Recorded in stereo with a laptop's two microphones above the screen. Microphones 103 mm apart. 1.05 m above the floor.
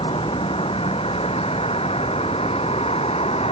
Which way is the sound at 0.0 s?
65° left (ahead or behind).